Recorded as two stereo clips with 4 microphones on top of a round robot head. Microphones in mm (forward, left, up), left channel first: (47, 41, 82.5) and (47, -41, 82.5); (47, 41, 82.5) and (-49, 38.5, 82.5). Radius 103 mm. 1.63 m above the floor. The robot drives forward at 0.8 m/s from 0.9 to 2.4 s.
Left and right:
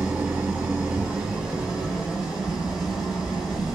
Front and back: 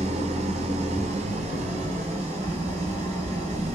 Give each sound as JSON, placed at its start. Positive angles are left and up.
{"t": 0.0, "sound": "an engine running", "azimuth_deg": -170, "distance_m": 2.0}